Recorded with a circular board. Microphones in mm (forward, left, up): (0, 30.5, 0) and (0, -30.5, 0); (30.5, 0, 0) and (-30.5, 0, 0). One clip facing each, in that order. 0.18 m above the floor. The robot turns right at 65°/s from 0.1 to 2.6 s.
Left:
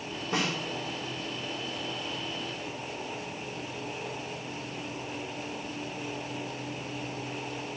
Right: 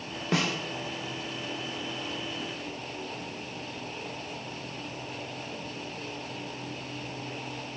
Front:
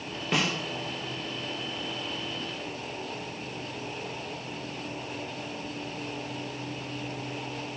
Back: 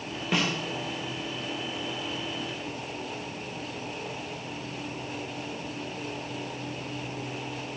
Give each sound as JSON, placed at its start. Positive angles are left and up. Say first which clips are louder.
{"t": 0.3, "sound": "a snare drum", "louder": "right 2 dB, even", "azimuth_deg": -90, "distance_m": 2.5}